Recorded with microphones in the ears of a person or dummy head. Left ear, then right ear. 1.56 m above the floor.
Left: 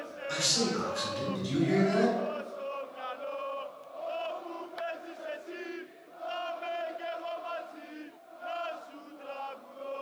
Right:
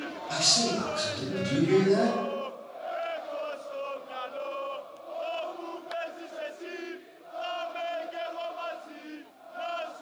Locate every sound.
0.3 s a man speaking: 40° left (ahead or behind), 2.0 m